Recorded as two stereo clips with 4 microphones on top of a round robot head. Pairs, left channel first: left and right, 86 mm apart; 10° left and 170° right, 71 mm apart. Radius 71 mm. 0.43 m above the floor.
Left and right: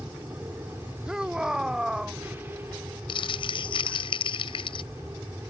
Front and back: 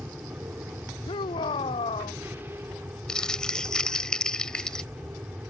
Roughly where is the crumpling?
Left.